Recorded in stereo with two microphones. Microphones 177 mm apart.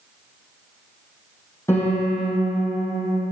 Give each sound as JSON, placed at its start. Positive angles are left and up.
{"t": 1.7, "sound": "a piano", "side_deg": 15, "distance_m": 5.5}